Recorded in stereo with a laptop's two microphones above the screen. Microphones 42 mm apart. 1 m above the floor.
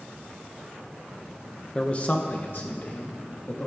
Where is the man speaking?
25° left (ahead or behind), 0.6 m; by 3.7 s 60° left (ahead or behind), 1.9 m.